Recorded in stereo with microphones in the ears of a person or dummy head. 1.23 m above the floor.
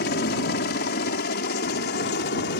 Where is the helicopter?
45° left (ahead or behind); by 2.6 s 50° left (ahead or behind).